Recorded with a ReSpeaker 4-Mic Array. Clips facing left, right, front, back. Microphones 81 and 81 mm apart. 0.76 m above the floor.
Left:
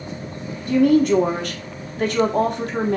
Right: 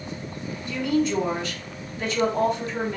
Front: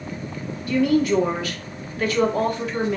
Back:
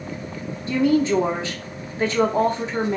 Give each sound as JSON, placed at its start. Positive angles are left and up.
{"t": 0.7, "sound": "a woman speaking", "azimuth_deg": 120, "distance_m": 1.4}